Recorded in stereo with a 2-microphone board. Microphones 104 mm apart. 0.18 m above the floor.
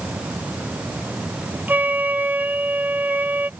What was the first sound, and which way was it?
A flute, 15° right (ahead or behind).